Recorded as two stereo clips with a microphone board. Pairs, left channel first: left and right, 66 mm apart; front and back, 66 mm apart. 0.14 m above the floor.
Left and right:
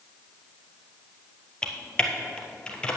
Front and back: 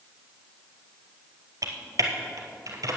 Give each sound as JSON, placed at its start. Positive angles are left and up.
{"t": 1.6, "sound": "typing on a keyboard", "azimuth_deg": 165, "distance_m": 1.7}